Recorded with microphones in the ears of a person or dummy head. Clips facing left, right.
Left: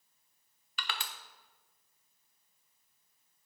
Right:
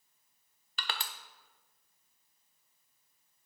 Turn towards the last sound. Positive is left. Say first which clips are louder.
# right 1 dB
turn(degrees=-30)  # may be behind; listen again after turning